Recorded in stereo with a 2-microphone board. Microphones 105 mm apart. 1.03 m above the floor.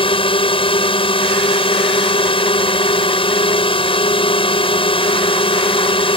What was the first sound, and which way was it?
A drone, 60° left (ahead or behind).